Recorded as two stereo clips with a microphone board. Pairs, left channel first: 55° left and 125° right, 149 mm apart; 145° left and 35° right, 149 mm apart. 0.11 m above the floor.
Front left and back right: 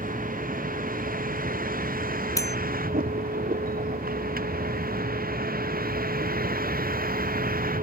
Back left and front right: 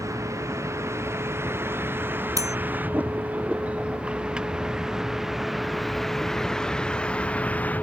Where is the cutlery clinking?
10° left.